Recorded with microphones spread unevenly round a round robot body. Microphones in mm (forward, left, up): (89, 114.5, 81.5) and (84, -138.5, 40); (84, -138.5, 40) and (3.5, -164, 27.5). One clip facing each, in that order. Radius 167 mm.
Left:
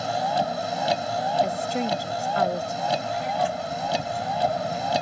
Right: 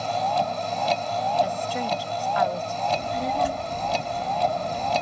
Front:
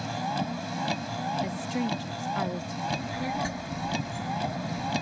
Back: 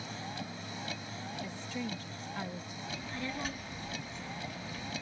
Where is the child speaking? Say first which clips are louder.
Right 2 dB, front 7 dB; 50° right.